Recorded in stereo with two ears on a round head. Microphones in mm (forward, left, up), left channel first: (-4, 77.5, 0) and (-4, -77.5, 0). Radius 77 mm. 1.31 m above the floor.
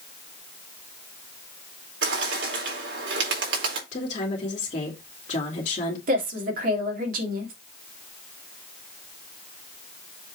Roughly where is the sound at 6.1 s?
Right.